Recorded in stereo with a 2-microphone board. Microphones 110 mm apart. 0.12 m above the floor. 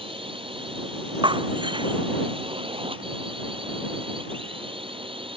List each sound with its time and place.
0.0 s a drone: 55° right (ahead or behind)
1.2 s breaking glass: 45° right (ahead or behind)